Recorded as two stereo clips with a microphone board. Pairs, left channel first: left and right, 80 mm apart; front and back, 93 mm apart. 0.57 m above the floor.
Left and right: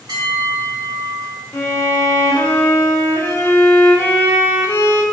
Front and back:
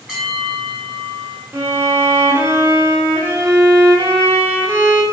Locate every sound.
0.1 s a bell: 90° right, 2 m
1.5 s a violin: 130° left, 0.9 m